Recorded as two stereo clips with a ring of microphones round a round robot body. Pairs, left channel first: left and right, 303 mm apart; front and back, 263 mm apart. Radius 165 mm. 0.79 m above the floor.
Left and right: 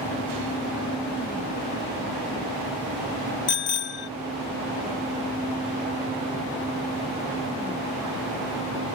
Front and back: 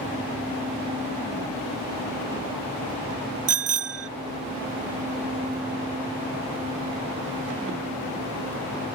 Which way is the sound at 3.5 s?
145° left.